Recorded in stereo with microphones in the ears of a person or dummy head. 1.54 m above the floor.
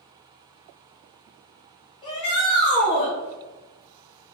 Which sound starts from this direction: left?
A shout, at 2.0 s.